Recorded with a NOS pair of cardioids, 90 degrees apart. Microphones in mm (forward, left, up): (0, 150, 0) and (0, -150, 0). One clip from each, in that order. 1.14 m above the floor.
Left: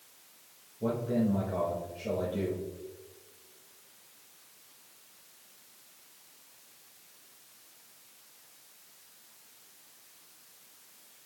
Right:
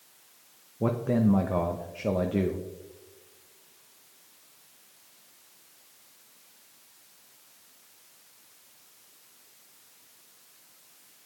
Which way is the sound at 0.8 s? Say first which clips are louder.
Right 4 dB; 65° right.